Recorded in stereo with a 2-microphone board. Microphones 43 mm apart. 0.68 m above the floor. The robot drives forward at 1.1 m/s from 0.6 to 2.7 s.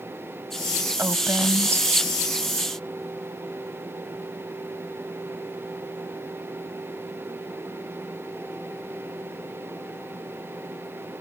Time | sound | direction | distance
1.0 | a woman speaking | 65° right (ahead or behind) | ?